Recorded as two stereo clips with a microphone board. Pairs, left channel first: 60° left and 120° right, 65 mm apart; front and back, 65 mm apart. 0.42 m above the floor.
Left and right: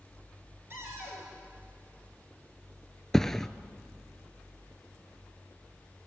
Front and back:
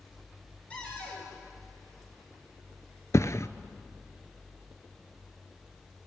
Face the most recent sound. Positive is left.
turn(degrees=-20)